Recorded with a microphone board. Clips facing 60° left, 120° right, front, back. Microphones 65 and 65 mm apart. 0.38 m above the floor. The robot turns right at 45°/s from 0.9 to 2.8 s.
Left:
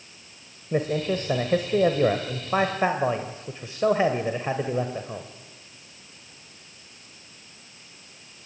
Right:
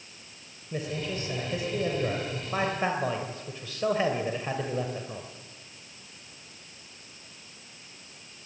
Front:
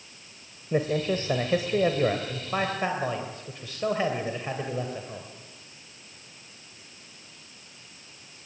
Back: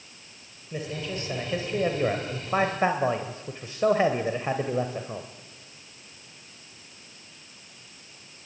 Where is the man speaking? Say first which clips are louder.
Left 8 dB, front 8 dB; 35° left, 2 m; by 5.3 s 120° left, 2 m.